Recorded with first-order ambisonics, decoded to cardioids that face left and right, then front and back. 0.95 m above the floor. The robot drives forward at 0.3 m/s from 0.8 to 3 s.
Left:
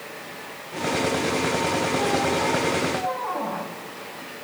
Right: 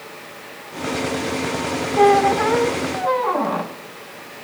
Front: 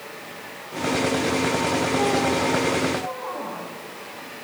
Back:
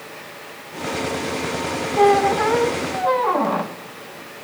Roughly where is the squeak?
Behind right.